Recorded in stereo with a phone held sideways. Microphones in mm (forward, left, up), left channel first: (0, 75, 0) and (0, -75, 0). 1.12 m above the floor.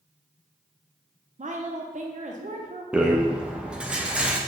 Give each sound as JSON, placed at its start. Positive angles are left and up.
{"t": 1.4, "sound": "a woman speaking", "side_deg": -55, "distance_m": 0.5}
{"t": 2.9, "sound": "a rattle", "side_deg": -5, "distance_m": 0.5}